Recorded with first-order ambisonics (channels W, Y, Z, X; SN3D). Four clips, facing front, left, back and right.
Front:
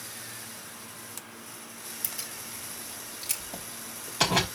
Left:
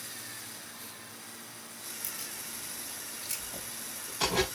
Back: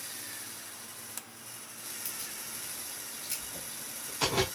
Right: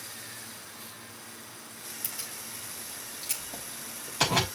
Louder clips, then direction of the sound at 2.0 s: Right 1 dB, front 4 dB; 20° right.